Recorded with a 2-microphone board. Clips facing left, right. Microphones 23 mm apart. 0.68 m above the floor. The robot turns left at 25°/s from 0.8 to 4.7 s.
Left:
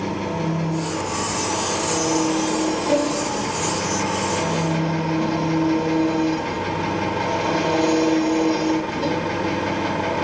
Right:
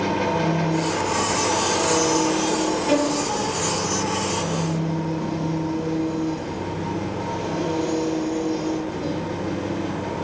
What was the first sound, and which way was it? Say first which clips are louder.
An engine running: right 3 dB; 135° right.